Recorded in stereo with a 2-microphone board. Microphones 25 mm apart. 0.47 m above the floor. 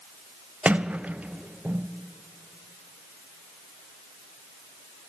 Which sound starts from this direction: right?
A sliding door, at 0.7 s.